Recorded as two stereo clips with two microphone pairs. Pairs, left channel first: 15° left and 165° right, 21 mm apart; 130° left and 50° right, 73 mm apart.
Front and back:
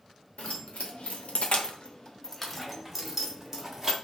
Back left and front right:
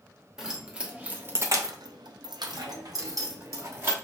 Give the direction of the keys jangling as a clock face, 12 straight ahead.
11 o'clock.